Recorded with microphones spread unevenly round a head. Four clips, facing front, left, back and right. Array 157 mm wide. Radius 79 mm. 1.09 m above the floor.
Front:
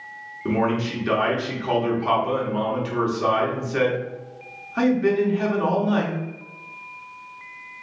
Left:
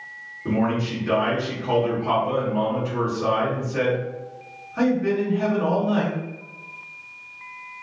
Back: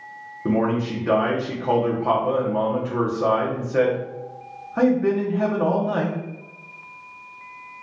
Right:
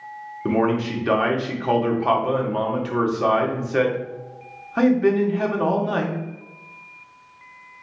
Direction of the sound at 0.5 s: 120° right.